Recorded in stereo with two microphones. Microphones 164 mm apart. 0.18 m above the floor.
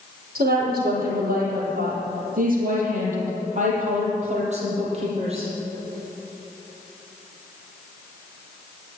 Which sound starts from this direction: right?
A woman speaking, at 0.3 s.